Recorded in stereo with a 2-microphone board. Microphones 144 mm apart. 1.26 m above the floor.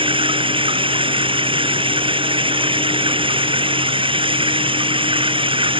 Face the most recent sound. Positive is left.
turn(degrees=-35)  # may be behind; listen again after turning